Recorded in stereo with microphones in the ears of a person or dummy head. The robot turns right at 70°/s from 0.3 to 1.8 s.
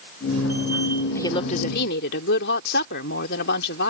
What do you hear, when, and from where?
1.1 s a woman speaking: 10° left; by 3.9 s 55° left